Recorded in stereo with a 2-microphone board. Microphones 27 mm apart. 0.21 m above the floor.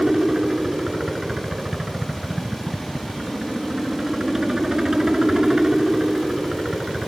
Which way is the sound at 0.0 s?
20° right (ahead or behind).